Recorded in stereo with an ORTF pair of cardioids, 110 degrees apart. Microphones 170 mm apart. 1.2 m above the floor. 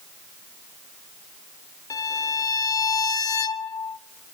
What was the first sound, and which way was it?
A violin, 20° left.